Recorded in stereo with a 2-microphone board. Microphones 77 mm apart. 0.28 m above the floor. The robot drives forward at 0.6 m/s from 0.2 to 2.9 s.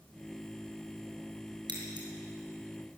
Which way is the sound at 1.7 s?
75° right (ahead or behind).